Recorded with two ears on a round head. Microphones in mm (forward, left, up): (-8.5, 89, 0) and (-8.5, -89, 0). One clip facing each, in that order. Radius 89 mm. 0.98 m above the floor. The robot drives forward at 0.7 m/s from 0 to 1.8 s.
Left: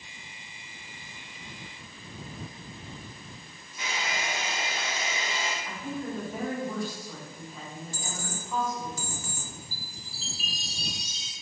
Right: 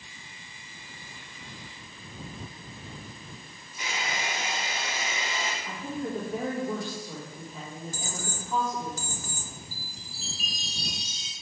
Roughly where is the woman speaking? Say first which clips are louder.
Right 1 dB; centre.